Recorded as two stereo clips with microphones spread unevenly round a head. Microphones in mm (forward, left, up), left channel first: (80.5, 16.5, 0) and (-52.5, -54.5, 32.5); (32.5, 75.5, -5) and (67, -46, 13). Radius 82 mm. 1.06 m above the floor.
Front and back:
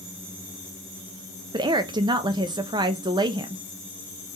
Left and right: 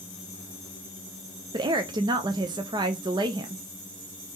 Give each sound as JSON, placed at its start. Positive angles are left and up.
{"t": 1.5, "sound": "a woman speaking", "azimuth_deg": -100, "distance_m": 0.5}